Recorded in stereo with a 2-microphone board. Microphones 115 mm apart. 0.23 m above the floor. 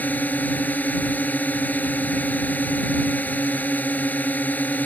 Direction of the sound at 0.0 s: 15° left (ahead or behind).